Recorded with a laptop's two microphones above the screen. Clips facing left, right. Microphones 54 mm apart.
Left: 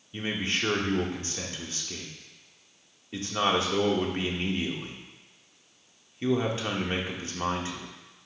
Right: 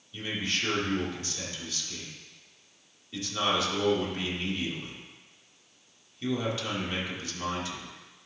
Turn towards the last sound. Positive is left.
turn(degrees=30)  # may be behind; listen again after turning